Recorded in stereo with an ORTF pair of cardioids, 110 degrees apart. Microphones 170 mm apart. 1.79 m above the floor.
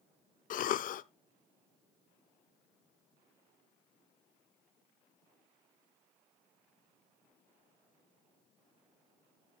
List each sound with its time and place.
0.5 s a cough: 55° left, 0.6 m